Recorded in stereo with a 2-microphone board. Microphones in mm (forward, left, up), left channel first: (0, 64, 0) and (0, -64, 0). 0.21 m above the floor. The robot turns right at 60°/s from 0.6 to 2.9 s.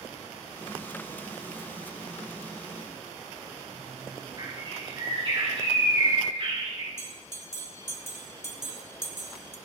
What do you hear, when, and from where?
4.4 s a bird: 50° right (ahead or behind), 6.5 m
7.0 s a bell: 20° left (ahead or behind), 1.9 m